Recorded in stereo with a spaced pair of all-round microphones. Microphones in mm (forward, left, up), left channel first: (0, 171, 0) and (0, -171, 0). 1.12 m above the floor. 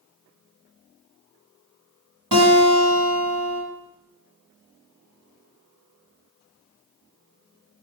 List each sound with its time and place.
2.3 s a guitar: 65° right (ahead or behind), 2 m